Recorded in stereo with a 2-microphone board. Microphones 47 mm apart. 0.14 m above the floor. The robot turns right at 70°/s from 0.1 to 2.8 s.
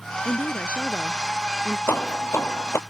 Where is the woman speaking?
100° left; by 1.8 s 150° right.